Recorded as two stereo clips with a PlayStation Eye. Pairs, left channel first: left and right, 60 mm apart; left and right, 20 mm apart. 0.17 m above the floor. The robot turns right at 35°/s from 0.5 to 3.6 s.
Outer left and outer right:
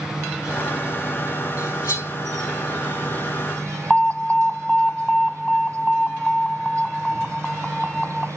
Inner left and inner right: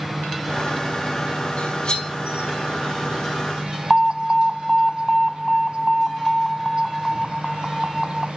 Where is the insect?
170° right, 1.2 m; by 8.4 s 65° right, 1.2 m.